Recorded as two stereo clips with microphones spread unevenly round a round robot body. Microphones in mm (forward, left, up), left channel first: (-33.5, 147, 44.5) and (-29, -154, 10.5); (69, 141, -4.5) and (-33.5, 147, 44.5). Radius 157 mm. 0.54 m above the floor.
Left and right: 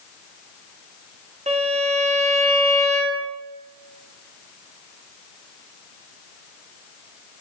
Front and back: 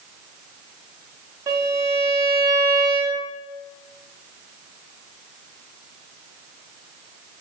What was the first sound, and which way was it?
A violin, 90° right.